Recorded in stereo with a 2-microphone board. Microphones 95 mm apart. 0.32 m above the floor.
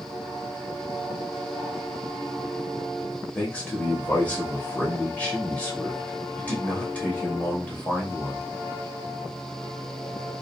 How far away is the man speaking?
About 1.3 m.